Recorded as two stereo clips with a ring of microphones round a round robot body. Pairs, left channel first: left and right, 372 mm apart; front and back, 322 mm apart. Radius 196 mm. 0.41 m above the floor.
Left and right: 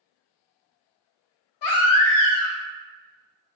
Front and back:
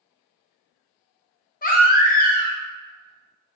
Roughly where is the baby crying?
Ahead left.